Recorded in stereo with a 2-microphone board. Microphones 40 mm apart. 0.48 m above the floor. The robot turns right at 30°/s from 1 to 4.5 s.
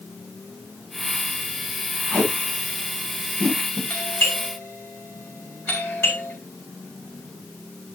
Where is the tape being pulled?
60° left (ahead or behind), 9.5 m; by 3.8 s 65° left (ahead or behind), 9.5 m.